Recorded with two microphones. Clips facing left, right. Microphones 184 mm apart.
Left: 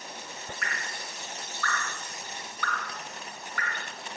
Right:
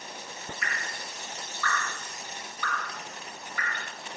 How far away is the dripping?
About 8 m.